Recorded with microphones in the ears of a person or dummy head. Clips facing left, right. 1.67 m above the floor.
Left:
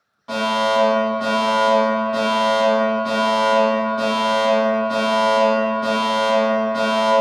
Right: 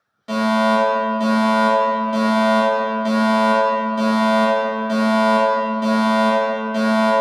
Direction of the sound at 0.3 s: 30° right (ahead or behind).